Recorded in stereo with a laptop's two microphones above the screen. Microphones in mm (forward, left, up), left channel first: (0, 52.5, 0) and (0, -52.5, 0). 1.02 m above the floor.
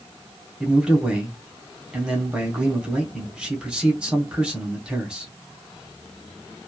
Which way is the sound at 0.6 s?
10° right (ahead or behind).